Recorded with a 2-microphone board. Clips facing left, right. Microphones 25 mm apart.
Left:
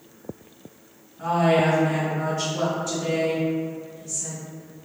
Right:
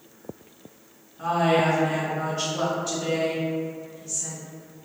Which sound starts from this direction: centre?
A woman speaking, at 1.2 s.